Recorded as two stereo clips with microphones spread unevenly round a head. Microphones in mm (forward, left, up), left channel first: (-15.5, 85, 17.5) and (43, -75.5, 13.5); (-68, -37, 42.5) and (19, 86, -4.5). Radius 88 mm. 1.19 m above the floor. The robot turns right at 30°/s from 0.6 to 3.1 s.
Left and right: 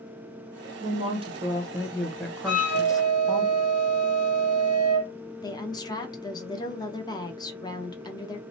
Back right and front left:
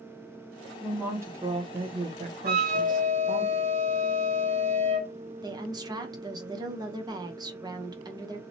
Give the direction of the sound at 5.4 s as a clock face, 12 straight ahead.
10 o'clock.